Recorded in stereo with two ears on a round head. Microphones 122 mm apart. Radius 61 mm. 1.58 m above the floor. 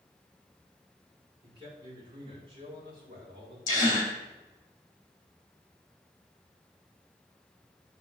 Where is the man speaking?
35° right (ahead or behind), 5.5 m; by 3.6 s 40° right (ahead or behind), 7 m.